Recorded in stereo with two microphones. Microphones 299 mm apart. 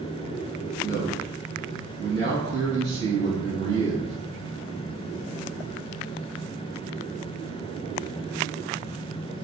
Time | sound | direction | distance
0.8 | a man speaking | 45° right (ahead or behind) | 1.9 m